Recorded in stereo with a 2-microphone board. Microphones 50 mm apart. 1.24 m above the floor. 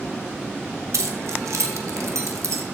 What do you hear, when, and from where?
0.9 s keys jangling: 80° right, 1.3 m